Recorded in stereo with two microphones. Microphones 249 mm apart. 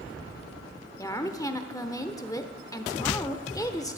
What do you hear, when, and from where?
1.0 s a woman speaking: 15° left (ahead or behind), 1.0 m